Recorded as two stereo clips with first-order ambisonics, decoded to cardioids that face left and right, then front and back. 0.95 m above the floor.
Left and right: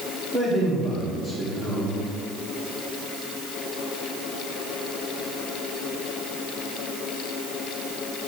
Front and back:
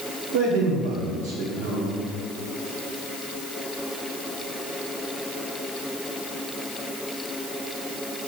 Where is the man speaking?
150° right, 2.5 m.